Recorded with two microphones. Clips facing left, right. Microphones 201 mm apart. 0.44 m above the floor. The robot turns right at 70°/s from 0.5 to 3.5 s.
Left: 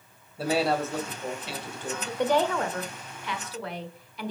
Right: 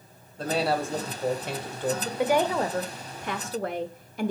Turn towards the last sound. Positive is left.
turn(degrees=-85)